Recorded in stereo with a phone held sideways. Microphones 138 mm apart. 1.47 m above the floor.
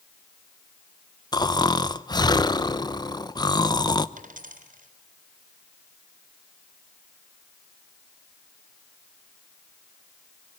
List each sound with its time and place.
1.3 s snoring: 30° left (ahead or behind), 0.7 m
4.2 s a dropped coin: 75° right (ahead or behind), 3.5 m